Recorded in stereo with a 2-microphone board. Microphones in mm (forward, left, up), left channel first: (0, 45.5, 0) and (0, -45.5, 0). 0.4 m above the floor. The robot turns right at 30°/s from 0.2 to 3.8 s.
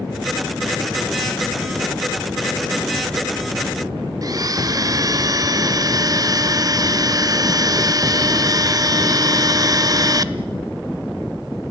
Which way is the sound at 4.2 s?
40° right (ahead or behind).